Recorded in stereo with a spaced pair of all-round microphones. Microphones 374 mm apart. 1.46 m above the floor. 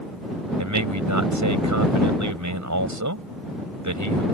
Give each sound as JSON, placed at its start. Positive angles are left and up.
{"t": 0.6, "sound": "a man speaking", "side_deg": -55}